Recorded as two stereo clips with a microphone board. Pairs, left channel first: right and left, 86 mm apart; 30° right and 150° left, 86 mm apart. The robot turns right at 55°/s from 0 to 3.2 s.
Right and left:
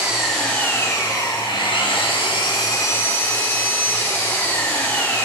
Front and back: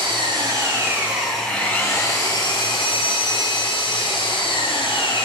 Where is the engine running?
165° left, 8 m; by 5.3 s 20° right, 8 m.